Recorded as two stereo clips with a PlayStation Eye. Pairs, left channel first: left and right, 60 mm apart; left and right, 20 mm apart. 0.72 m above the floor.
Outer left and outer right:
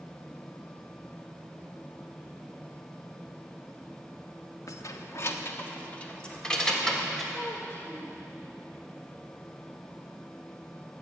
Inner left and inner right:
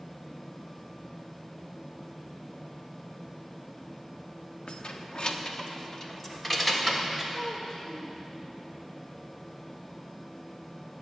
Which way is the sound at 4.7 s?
65° left (ahead or behind).